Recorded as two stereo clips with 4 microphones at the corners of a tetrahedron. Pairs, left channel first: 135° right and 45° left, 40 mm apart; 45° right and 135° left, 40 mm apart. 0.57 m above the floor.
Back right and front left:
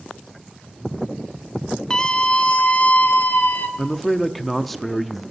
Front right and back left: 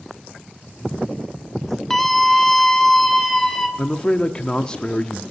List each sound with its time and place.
1.9 s a scream: 115° right, 0.9 m; by 3.7 s 130° right, 1.5 m
3.8 s a man speaking: 55° right, 0.6 m